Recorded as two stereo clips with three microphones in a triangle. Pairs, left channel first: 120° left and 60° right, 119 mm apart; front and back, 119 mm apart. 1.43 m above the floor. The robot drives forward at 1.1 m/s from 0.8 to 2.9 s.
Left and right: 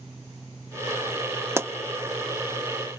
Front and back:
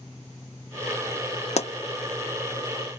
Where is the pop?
5° left, 0.6 m.